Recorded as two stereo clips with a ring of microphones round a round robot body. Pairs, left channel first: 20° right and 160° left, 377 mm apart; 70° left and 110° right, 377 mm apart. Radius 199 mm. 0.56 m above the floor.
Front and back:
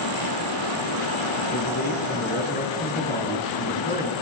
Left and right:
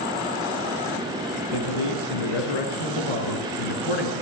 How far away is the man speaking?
About 9 m.